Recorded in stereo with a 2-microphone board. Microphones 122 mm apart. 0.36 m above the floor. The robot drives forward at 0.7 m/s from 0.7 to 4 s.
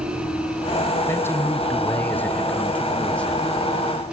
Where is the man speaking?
20° left (ahead or behind), 1.0 m; by 4.1 s 10° left (ahead or behind), 2.5 m.